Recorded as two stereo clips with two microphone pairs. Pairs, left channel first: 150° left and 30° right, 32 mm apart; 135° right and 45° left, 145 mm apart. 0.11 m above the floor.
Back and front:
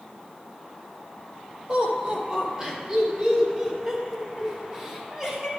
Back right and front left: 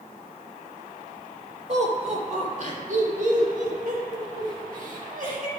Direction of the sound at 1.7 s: 20° left.